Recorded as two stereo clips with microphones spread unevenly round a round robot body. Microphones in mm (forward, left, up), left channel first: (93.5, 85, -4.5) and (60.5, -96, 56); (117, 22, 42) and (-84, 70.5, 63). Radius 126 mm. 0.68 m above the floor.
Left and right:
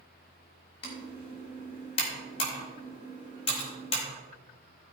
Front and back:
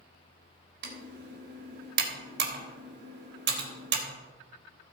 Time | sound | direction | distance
0.8 | typing on a keyboard | 140° left | 3.5 m